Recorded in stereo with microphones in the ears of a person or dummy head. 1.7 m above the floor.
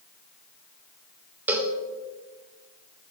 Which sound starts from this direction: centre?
A cowbell, at 1.5 s.